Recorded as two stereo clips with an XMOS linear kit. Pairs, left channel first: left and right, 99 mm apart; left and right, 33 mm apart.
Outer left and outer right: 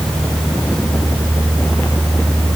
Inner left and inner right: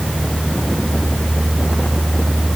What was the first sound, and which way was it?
Only background noise.